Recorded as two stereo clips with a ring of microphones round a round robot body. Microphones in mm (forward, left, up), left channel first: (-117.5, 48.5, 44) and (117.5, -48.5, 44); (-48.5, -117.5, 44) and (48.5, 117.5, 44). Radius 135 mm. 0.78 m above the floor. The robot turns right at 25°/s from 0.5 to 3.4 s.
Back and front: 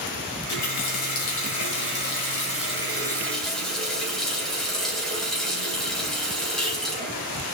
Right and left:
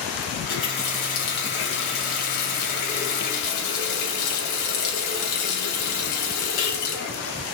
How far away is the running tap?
About 3 m.